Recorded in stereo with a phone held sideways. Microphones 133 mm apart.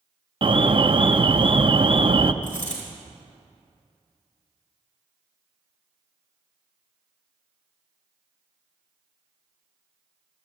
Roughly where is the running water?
No running water in this recording.